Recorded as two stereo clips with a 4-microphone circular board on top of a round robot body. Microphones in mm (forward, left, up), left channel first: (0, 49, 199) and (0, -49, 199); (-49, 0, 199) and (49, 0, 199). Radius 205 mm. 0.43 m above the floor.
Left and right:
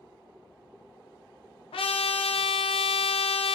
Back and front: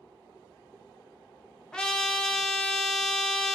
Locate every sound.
1.7 s a trumpet: 100° left, 0.5 m